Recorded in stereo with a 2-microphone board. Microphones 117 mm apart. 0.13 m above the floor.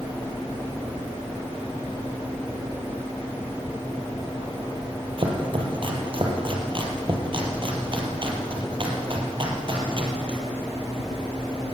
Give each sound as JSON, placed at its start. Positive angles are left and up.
{"t": 5.2, "sound": "chopping", "side_deg": -45, "distance_m": 4.0}